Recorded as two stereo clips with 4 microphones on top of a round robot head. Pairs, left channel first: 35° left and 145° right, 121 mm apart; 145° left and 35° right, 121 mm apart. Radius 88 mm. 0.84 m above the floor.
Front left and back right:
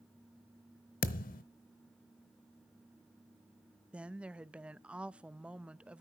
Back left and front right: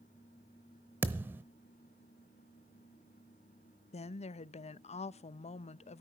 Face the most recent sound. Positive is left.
turn(degrees=135)